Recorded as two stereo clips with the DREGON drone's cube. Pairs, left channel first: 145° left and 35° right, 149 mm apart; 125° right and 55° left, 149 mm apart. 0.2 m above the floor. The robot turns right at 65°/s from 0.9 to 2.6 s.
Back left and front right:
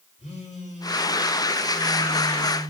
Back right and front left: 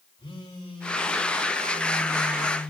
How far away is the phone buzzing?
About 4 m.